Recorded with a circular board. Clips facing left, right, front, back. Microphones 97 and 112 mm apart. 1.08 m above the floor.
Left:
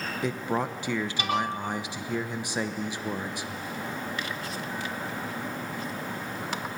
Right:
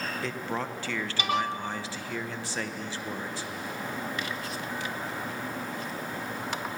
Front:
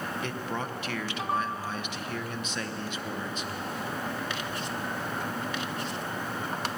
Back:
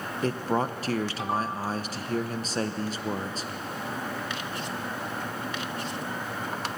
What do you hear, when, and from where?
0.2 s a man speaking: 155° left, 0.9 m